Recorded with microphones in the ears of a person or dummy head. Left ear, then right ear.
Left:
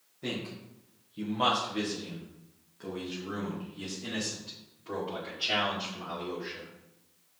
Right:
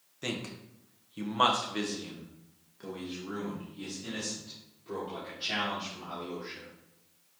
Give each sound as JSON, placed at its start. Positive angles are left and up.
{"t": 0.2, "sound": "a man speaking", "side_deg": -75, "distance_m": 1.4}